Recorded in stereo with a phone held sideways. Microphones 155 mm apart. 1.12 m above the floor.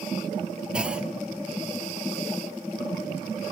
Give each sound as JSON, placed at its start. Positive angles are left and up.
{"t": 0.7, "sound": "a clunk", "side_deg": -5, "distance_m": 1.0}